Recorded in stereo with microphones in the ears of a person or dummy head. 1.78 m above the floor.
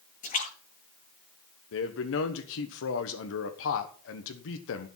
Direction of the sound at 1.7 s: 75° left (ahead or behind).